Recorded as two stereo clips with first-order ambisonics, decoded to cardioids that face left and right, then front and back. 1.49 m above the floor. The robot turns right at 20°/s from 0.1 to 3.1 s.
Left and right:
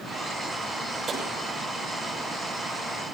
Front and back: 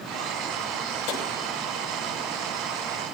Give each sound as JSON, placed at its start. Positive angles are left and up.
{"t": 1.1, "sound": "tapping", "azimuth_deg": -25, "distance_m": 5.5}